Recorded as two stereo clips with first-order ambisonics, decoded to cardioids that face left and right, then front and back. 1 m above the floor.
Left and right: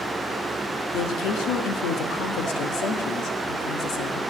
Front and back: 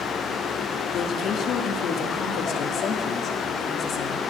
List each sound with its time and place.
0.9 s a woman speaking: 55° left, 1.4 m